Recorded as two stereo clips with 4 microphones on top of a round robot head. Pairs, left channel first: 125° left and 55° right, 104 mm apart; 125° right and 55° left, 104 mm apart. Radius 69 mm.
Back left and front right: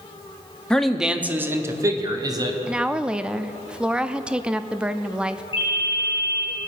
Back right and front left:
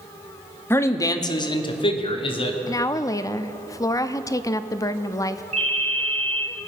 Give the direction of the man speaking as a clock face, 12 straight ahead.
5 o'clock.